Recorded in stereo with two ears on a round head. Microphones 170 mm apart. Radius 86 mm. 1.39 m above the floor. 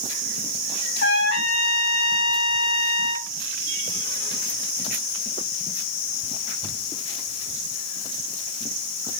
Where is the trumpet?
60° left (ahead or behind), 4.5 m.